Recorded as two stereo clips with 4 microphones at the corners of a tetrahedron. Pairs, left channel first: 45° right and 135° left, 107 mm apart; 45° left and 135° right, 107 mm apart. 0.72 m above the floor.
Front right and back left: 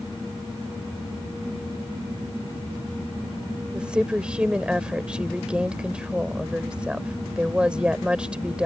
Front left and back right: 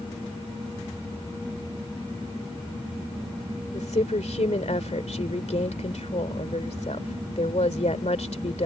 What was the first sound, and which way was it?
A woman speaking, 55° left.